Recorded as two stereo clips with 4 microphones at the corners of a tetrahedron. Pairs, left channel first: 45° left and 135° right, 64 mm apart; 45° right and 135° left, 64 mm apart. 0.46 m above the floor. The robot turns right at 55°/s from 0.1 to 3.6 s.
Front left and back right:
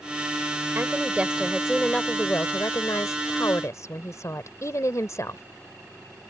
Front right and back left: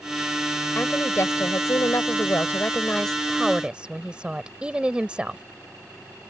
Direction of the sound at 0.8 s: 95° right.